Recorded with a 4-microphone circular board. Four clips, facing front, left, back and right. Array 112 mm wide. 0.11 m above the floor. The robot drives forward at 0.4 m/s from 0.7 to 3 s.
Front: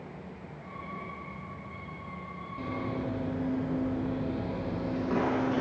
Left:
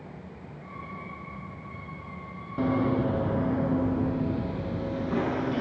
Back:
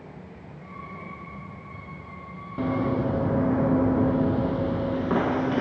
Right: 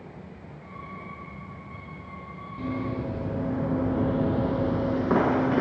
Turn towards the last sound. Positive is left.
turn(degrees=-105)